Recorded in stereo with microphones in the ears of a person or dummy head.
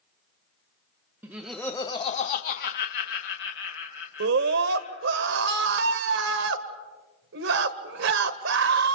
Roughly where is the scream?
Right.